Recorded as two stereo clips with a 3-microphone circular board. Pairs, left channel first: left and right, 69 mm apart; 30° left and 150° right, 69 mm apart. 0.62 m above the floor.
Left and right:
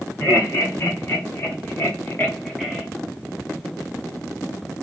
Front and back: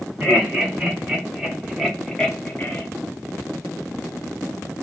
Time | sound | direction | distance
0.2 | laughter | 135° left | 2.5 m